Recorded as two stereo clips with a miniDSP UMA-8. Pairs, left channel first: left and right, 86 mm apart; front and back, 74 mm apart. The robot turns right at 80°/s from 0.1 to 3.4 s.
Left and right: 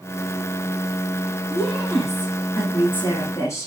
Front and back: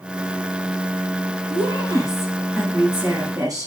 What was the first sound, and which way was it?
A woman speaking, 10° right.